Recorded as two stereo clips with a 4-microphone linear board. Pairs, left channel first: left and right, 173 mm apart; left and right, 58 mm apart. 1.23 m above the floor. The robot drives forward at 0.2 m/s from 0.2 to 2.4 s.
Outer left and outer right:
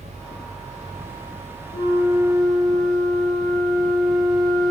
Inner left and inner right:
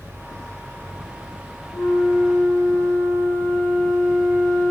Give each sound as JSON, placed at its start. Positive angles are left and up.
{"t": 1.7, "sound": "a flute", "side_deg": -5, "distance_m": 1.7}